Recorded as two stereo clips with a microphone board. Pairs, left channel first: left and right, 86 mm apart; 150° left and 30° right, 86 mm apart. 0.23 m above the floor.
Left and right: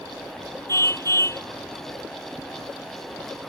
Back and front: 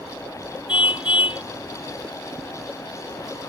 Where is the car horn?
145° left.